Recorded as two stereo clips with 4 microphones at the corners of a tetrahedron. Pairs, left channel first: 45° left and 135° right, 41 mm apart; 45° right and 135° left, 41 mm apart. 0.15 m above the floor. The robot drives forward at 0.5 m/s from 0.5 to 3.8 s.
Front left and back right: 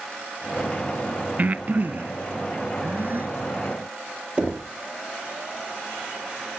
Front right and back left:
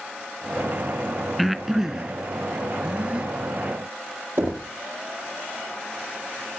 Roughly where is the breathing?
Behind right.